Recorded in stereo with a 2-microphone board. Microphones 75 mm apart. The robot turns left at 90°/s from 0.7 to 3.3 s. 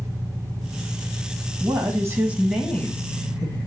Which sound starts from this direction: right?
A woman speaking, at 1.6 s.